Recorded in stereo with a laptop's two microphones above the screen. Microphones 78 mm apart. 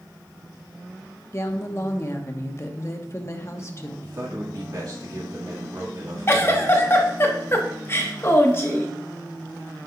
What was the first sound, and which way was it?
A woman speaking, 40° left (ahead or behind).